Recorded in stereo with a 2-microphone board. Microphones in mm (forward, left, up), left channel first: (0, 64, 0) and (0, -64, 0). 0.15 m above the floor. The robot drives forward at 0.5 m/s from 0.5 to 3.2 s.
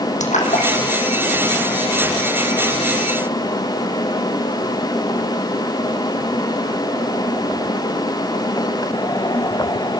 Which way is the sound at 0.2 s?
80° left.